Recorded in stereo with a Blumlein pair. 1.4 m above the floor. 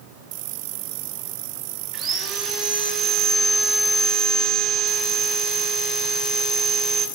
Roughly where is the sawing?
Ahead right.